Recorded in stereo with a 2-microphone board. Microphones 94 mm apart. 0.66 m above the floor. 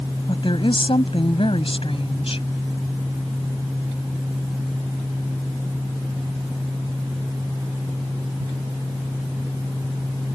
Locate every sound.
0.3 s a woman speaking: 60° left (ahead or behind); by 2.5 s 80° left